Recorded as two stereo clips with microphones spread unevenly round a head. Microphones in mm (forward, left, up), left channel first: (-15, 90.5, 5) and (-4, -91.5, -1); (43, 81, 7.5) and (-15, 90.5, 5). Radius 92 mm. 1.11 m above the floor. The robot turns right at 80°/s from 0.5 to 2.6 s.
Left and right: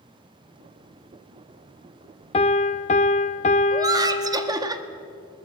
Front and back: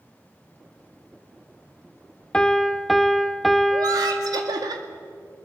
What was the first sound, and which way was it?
A piano, 55° left.